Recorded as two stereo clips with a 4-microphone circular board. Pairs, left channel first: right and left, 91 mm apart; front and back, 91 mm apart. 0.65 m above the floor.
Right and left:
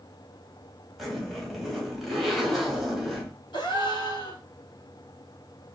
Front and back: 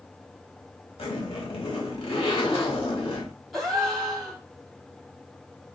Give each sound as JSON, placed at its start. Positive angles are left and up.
{"t": 1.0, "sound": "a zipper", "azimuth_deg": 0, "distance_m": 1.2}
{"t": 3.5, "sound": "a gasp", "azimuth_deg": -90, "distance_m": 1.2}